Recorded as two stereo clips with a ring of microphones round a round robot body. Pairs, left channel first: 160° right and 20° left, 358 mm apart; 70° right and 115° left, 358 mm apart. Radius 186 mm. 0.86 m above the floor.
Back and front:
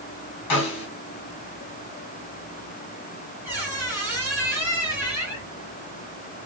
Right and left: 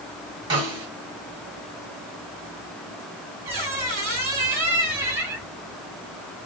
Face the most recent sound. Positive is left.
turn(degrees=110)